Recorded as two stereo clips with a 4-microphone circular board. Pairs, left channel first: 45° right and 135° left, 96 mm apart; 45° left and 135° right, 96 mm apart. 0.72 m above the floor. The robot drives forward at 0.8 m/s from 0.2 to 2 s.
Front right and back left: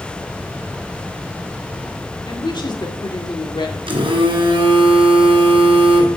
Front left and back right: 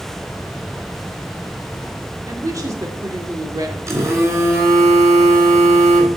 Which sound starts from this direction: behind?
A phone buzzing, at 3.9 s.